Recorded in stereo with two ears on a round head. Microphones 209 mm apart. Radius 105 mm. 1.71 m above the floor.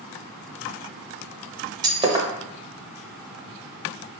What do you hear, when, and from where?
1.8 s breaking glass: 20° right (ahead or behind), 0.8 m